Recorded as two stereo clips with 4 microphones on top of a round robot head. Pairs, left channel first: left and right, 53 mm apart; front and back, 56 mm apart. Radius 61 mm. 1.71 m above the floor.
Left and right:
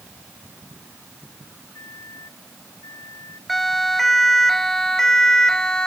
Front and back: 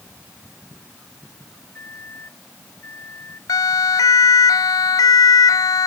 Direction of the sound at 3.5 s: Straight ahead.